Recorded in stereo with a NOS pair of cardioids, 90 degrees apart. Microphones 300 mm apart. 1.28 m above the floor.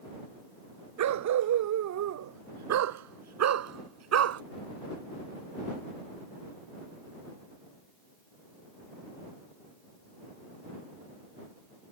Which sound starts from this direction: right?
A dog barking, at 1.0 s.